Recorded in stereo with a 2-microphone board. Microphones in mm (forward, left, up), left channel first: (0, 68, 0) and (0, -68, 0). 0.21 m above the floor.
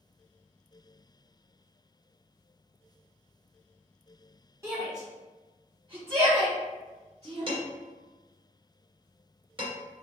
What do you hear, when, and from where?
4.6 s a shout: 20° right (ahead or behind), 1.4 m; by 7.6 s 55° right (ahead or behind), 2.5 m
7.5 s dishes clattering: 40° right (ahead or behind), 1.9 m